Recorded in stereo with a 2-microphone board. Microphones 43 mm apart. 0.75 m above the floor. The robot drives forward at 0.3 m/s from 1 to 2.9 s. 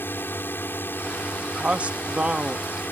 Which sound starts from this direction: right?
A man speaking, at 1.6 s.